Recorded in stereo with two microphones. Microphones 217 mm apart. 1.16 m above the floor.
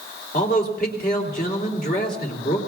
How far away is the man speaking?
About 3 m.